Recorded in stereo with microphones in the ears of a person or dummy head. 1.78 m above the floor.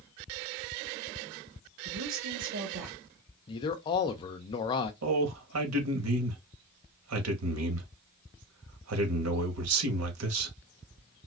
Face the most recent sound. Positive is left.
turn(degrees=-90)